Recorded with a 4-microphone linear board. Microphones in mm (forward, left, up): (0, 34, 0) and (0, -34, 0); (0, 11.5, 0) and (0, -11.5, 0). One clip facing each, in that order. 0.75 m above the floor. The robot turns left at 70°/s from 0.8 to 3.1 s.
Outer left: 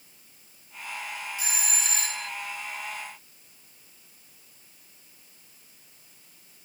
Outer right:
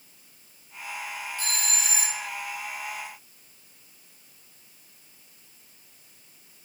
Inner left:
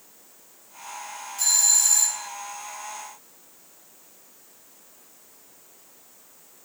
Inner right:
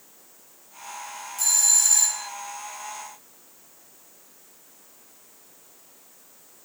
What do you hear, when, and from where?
1.4 s a doorbell: 30° left, 1.7 m; by 2.3 s 35° right, 1.7 m